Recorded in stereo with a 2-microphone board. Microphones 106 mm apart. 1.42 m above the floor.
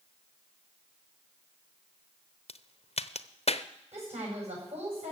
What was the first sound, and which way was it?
A crack, 70° left (ahead or behind).